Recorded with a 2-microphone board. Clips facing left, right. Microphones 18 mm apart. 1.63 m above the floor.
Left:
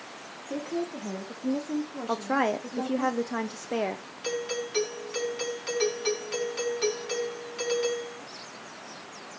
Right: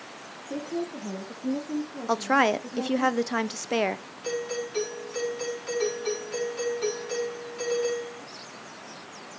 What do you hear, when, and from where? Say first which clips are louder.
0.5 s a woman speaking: even; 30° left (ahead or behind), 1.5 m; by 3.1 s 75° left (ahead or behind), 2.5 m
2.1 s a woman speaking: right 4 dB; 75° right (ahead or behind), 0.9 m
4.2 s a doorbell: right 1 dB; 40° left (ahead or behind), 5 m